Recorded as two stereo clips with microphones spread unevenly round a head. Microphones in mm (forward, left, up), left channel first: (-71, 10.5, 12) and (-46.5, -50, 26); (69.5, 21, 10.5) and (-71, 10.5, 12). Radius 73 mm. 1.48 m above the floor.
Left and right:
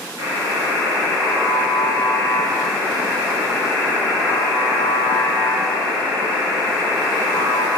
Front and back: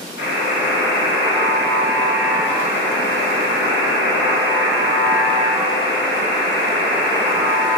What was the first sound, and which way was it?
A buzzer, 5° left.